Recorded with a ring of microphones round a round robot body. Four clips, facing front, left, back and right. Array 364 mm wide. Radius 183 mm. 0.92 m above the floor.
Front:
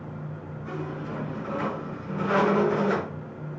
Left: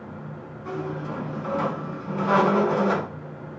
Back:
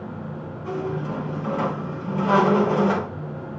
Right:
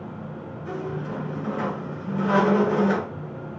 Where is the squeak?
145° left, 4.5 m.